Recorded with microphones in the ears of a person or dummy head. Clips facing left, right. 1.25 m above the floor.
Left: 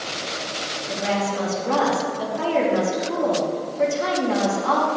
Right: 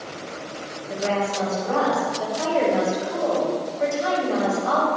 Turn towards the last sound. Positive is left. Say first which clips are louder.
# even
turn(degrees=75)  # may be behind; listen again after turning